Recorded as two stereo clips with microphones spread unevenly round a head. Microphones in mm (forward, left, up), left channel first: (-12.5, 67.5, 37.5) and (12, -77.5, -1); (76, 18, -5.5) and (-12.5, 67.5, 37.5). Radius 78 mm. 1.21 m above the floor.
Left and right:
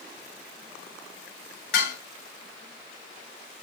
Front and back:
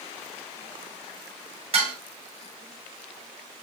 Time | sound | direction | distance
1.7 | dishes clattering | 125° left | 6.5 m